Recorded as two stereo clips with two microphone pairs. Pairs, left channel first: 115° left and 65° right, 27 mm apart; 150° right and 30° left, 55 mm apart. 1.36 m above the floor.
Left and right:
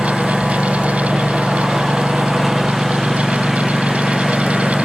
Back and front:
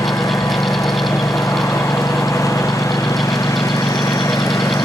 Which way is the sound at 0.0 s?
145° right.